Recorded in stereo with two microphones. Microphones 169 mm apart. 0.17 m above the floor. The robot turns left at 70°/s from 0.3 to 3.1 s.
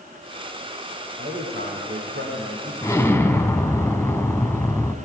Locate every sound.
1.2 s a man speaking: 50° right, 10 m; by 2.7 s 160° right, 10 m
2.8 s an explosion: 20° left (ahead or behind), 1.2 m; by 4.9 s 15° left (ahead or behind), 1.2 m